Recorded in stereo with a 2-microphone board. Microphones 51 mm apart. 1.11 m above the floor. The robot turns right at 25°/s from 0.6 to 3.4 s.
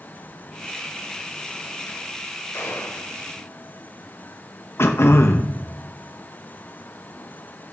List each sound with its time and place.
2.5 s a gunshot: 65° left (ahead or behind), 2 m; by 3.1 s 75° left (ahead or behind), 2 m
4.8 s throat clearing: 55° left (ahead or behind), 0.9 m